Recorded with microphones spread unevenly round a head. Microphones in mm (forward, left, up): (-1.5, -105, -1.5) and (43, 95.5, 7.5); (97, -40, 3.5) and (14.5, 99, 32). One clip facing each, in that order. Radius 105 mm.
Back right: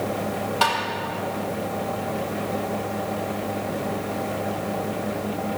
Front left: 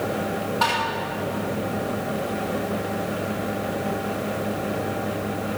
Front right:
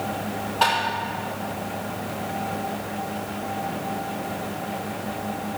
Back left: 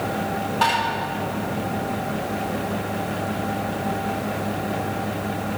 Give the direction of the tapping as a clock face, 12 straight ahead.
5 o'clock.